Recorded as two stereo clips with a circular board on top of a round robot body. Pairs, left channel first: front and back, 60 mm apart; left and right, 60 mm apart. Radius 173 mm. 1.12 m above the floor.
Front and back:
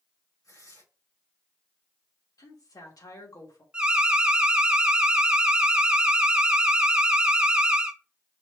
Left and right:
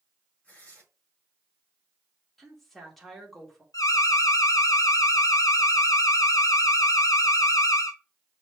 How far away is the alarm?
About 1.0 m.